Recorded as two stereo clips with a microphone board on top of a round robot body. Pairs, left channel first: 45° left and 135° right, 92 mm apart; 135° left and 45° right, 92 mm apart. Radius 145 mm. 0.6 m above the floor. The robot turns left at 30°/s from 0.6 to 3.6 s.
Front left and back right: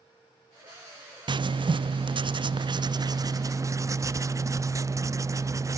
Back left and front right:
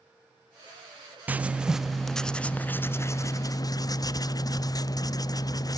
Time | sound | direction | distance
1.3 | writing | 115° right | 0.5 m